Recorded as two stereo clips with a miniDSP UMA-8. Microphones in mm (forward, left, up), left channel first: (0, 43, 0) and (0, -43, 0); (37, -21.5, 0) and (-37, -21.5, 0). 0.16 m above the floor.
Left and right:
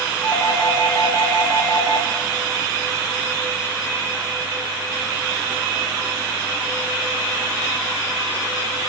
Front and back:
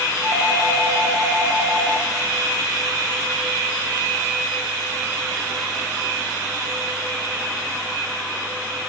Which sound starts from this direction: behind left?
A doorbell, at 0.2 s.